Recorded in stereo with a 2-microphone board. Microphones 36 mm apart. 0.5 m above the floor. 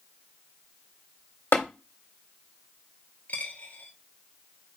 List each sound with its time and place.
1.5 s tapping: 65° left (ahead or behind), 1.7 m
3.3 s a dropped coin: 55° left (ahead or behind), 1.6 m